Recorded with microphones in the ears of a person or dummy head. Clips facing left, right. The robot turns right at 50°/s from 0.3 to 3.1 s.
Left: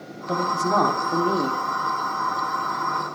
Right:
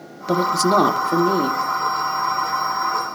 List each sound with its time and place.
0.3 s a man speaking: 70° right, 1.1 m; by 1.6 s 5° right, 1.1 m